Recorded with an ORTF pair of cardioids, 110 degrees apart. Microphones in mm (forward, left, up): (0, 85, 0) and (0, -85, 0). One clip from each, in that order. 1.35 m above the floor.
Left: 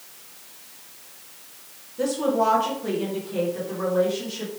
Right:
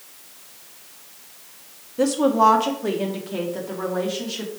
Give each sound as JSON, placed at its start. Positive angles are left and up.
{"t": 2.0, "sound": "a woman speaking", "azimuth_deg": -35, "distance_m": 1.3}